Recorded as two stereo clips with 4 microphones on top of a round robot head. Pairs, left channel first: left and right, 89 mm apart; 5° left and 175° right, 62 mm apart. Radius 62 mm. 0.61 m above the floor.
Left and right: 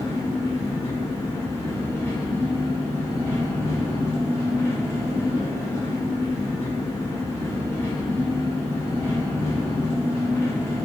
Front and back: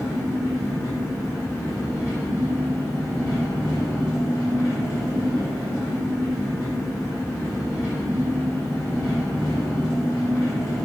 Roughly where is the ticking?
No ticking in this recording.